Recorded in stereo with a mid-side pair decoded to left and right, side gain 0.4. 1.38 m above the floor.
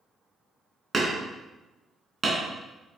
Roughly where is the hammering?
Ahead right.